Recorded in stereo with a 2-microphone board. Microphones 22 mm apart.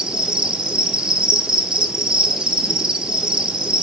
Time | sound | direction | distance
0.0 | an insect | 40° right (ahead or behind) | 0.9 m